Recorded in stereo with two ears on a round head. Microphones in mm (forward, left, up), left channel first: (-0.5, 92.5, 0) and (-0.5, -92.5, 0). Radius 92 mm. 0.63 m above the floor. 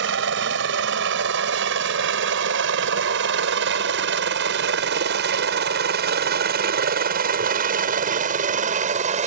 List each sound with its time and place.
0.0 s a helicopter: 60° right (ahead or behind); by 9.3 s 35° right (ahead or behind)